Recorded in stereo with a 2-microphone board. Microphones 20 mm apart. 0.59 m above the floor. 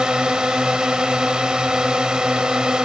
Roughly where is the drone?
Right.